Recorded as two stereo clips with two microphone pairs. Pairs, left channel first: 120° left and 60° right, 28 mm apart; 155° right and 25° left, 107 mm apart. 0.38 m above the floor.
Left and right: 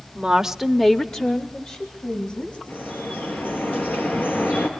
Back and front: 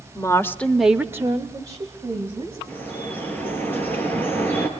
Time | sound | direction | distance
0.1 | a woman speaking | 105° right | 1.2 m
2.7 | dripping | 135° left | 4 m